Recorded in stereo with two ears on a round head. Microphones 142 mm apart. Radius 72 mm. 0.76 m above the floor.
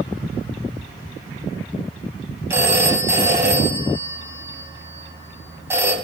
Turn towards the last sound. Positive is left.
turn(degrees=-15)  # may be behind; listen again after turning